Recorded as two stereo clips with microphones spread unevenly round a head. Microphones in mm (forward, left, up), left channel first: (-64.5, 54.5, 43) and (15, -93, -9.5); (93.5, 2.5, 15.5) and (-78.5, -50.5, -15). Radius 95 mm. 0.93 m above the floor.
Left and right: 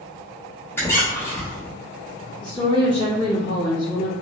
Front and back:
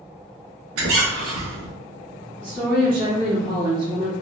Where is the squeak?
160° right, 1.1 m.